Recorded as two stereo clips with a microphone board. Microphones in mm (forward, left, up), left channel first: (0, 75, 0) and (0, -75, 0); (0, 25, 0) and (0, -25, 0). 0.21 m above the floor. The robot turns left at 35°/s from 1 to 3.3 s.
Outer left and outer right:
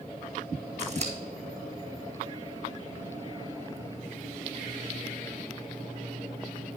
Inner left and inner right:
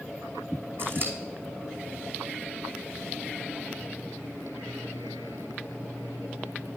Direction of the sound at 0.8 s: 50° right (ahead or behind).